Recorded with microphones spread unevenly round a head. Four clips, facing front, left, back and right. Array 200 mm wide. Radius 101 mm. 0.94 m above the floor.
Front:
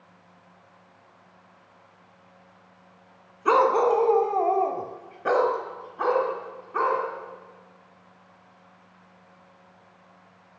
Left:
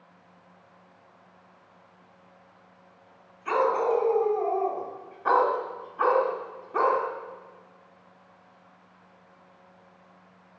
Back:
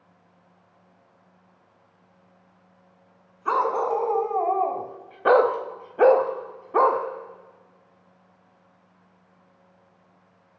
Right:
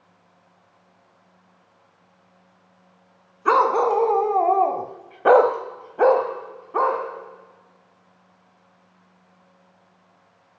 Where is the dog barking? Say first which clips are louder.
Right 6 dB, front 4 dB; 55° right, 2.5 m; by 7.0 s 175° right, 2 m.